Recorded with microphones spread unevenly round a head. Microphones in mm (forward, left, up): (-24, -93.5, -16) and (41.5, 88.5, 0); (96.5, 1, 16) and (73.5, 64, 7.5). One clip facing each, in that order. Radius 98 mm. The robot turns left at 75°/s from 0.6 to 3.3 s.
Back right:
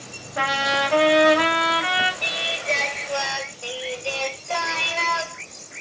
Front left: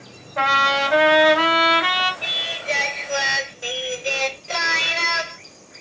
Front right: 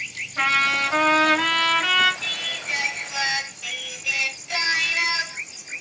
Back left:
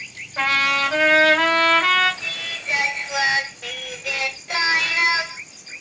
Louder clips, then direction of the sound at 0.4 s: Front left 2 dB, back left 1 dB; 170° left.